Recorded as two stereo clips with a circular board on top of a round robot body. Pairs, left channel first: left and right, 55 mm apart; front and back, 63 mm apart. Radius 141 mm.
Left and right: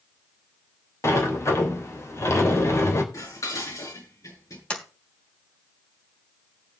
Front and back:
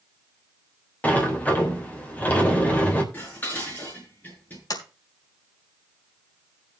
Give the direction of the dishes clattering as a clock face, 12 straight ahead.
10 o'clock.